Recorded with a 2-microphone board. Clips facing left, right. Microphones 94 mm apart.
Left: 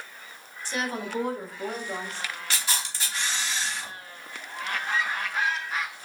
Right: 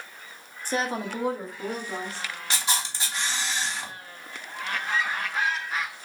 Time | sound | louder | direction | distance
0.7 | a woman speaking | right 3 dB | 45° right (ahead or behind) | 0.7 m
2.5 | a camera shutter | right 5 dB | 20° right (ahead or behind) | 1.0 m